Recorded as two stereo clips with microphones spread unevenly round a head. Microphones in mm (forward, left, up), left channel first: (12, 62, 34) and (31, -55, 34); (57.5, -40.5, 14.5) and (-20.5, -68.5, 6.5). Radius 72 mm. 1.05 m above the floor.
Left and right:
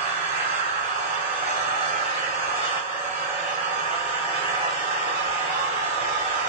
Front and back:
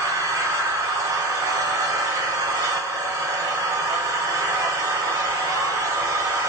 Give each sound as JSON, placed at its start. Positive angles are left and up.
{"t": 0.0, "sound": "an engine running", "azimuth_deg": -115, "distance_m": 2.0}